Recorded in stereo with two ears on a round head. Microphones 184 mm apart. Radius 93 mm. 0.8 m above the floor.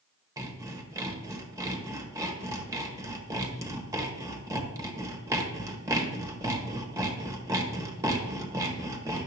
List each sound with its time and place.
0.4 s sawing: 15° right (ahead or behind), 1.0 m